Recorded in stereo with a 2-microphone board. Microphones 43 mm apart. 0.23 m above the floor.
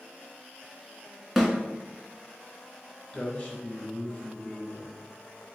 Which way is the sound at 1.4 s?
Centre (ahead or behind).